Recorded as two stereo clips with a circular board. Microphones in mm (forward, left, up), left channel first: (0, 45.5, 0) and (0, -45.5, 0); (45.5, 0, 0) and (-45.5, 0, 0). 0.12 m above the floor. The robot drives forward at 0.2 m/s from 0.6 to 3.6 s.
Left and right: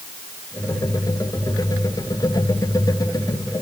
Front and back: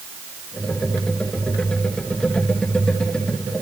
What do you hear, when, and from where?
Only background noise.